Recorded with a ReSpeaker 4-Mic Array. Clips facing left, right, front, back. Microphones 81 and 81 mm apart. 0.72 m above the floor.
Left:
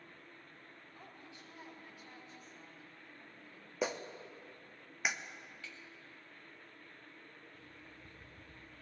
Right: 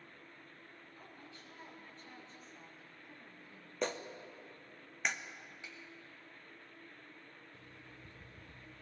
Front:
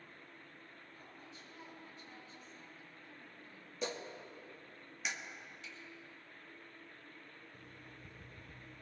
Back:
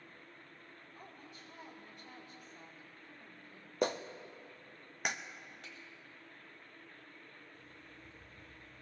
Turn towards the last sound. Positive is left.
turn(degrees=-20)